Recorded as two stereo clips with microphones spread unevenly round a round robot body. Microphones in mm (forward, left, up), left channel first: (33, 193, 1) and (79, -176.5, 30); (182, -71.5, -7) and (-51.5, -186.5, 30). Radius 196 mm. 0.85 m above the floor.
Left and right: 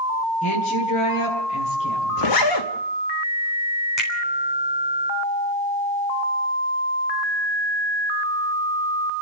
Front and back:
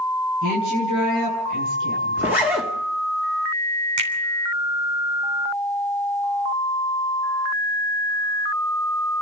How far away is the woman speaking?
About 10 m.